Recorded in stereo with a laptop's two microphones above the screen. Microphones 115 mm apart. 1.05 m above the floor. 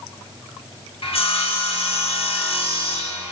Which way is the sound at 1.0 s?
60° left (ahead or behind).